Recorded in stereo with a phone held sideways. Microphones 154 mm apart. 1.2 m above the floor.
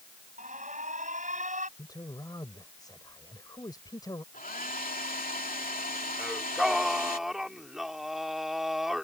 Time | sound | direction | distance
0.4 | an alarm | 55° right (ahead or behind) | ?
1.8 | a man speaking | 25° left (ahead or behind) | ?
4.3 | a hair dryer | 65° left (ahead or behind) | ?
6.2 | singing | centre (ahead or behind) | ?